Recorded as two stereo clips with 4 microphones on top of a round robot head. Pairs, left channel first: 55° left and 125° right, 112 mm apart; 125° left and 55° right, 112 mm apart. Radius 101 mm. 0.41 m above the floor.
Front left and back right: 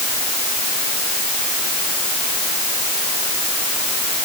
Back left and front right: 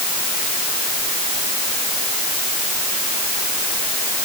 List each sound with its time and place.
Only background noise.